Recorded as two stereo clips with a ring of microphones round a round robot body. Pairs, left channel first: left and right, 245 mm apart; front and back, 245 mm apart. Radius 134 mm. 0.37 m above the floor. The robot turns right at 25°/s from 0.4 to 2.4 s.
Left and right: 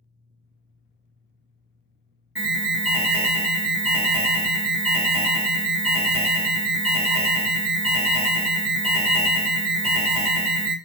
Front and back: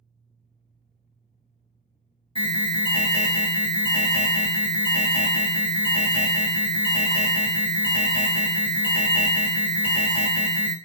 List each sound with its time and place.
2.4 s an alarm: 10° right, 1.2 m